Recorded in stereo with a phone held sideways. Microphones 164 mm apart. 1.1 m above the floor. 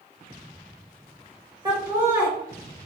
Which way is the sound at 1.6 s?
30° right (ahead or behind).